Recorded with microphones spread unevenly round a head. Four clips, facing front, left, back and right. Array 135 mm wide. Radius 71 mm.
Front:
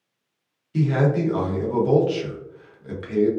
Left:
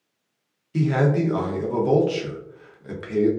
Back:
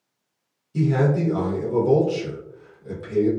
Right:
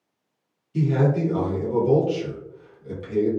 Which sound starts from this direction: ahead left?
A man speaking, at 0.7 s.